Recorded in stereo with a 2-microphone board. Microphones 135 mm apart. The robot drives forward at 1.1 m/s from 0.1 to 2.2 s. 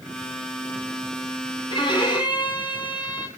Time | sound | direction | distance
1.7 | a violin | 40° left (ahead or behind) | 3 m